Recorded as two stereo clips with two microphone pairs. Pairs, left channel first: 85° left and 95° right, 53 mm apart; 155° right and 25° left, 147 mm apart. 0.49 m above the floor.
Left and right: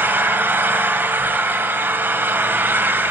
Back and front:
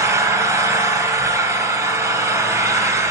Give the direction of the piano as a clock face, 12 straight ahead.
I don't hear a piano.